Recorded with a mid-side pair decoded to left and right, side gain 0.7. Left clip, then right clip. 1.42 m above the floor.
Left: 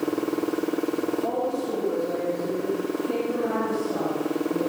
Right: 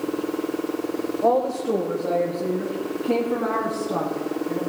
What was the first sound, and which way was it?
A woman speaking, 55° right.